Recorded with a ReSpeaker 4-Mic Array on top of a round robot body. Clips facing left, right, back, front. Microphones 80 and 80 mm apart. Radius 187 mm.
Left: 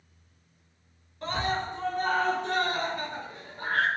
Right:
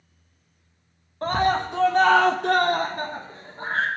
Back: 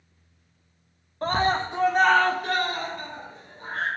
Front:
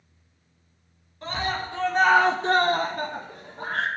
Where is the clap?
No clap in this recording.